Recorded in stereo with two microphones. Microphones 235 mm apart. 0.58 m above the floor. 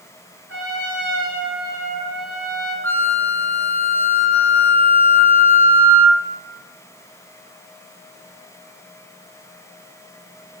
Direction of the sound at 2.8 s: 10° left (ahead or behind).